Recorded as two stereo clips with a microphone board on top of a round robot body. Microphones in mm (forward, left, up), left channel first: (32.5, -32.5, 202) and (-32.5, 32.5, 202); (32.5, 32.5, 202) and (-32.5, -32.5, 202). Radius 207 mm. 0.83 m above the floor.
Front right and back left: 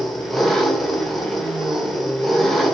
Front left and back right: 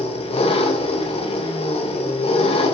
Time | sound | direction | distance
0.0 | an engine running | 45° left | 1.9 m